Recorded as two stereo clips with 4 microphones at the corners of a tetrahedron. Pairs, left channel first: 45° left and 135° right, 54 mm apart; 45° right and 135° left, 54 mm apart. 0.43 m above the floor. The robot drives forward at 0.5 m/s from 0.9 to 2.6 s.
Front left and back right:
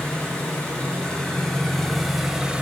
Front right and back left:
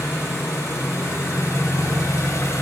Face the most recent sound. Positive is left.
turn(degrees=-65)